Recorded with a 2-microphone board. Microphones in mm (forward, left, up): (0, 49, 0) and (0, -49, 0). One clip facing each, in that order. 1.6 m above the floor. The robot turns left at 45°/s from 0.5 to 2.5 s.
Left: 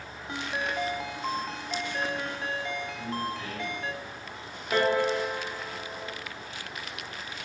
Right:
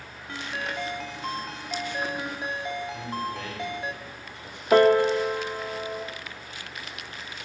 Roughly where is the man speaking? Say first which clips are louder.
Right 1 dB; right.